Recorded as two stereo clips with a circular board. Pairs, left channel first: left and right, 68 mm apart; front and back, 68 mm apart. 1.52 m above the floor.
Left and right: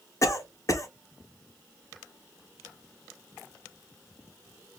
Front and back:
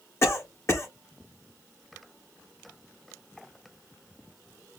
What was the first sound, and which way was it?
A cough, 50° left.